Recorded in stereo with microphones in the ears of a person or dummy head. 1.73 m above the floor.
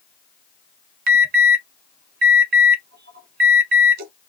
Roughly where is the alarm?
Right.